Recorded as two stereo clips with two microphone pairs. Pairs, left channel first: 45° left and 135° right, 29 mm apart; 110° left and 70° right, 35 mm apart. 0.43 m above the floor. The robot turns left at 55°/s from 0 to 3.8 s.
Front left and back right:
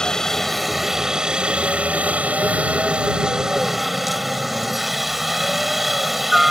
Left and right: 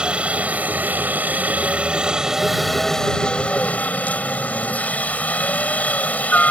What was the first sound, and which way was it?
A helicopter, 10° right.